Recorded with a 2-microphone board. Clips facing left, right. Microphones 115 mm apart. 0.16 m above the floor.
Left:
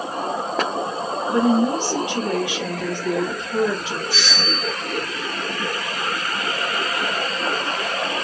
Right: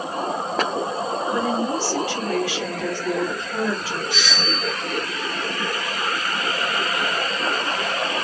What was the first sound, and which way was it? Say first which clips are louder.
A woman speaking: left 7 dB; 20° left (ahead or behind).